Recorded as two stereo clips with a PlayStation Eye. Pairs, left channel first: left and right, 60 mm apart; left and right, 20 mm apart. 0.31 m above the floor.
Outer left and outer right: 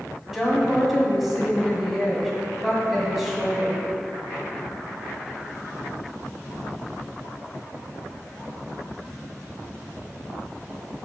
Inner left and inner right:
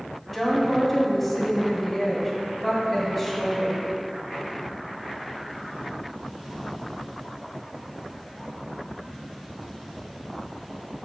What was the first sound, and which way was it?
A woman speaking, 5° right (ahead or behind).